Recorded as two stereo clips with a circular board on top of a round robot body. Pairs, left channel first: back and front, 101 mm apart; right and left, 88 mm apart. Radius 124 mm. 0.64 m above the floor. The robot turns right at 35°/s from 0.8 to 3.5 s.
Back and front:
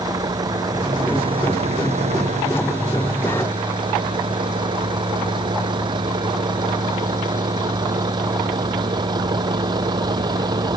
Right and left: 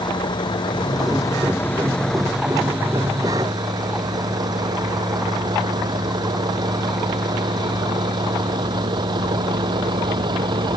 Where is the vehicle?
55° right; by 10.8 s 50° left.